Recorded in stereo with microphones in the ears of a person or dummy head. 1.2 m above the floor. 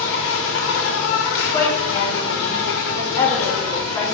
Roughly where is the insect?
Left.